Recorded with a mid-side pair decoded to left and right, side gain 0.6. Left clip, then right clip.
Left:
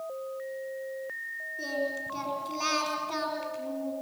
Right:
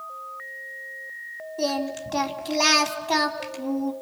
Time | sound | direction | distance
1.6 | singing | 65° right | 3.5 m